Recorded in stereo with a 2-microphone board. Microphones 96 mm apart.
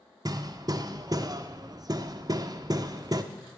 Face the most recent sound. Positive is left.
turn(degrees=-40)  # may be behind; listen again after turning